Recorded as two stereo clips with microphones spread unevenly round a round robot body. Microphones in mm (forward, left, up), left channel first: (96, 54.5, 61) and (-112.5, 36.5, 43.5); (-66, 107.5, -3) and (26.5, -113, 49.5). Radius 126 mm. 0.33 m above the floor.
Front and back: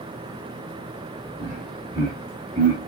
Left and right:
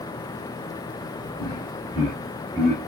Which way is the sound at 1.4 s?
155° right.